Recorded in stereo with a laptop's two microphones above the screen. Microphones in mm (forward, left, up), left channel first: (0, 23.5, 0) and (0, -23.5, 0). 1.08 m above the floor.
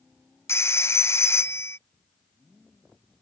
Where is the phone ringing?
70° left (ahead or behind).